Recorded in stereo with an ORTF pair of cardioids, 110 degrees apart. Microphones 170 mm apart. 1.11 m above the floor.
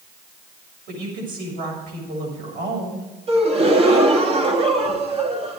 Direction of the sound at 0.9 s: 65° right.